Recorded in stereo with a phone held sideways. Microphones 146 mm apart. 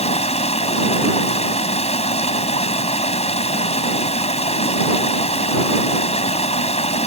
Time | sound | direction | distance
0.0 | running water | 45° left (ahead or behind) | ?